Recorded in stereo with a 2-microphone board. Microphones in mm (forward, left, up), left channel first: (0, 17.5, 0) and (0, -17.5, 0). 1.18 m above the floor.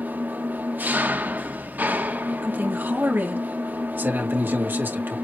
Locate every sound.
0.0 s an engine running: 60° right (ahead or behind), 1.2 m
2.4 s a man speaking: 70° right (ahead or behind), 2.5 m